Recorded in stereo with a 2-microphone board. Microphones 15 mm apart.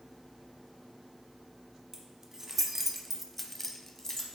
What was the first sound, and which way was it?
Keys jangling, 30° right (ahead or behind).